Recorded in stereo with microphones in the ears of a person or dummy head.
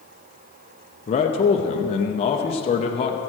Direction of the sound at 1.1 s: 30° left (ahead or behind).